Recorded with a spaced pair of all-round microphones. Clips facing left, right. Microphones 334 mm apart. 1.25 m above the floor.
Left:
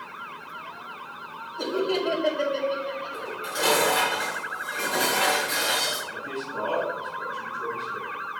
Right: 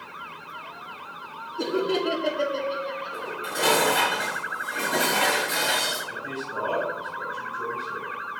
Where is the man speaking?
75° right (ahead or behind), 1.8 m.